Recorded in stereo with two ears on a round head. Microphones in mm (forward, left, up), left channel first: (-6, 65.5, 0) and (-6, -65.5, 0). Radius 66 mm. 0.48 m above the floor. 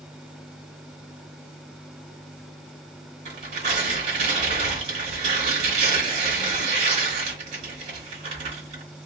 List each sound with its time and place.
3.2 s tearing paper: 50° right (ahead or behind), 1.6 m